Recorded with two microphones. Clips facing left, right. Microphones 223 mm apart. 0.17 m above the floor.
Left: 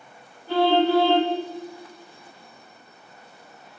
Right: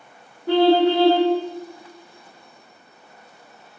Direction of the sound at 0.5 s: 75° right (ahead or behind).